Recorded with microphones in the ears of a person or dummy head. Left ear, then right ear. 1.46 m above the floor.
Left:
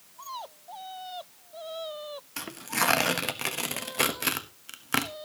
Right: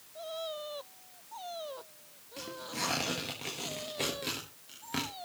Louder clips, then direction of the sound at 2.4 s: Left 8 dB; 55° left (ahead or behind).